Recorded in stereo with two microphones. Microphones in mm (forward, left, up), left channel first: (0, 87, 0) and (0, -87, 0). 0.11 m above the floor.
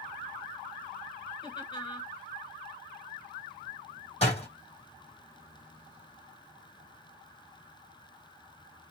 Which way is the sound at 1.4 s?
25° left (ahead or behind).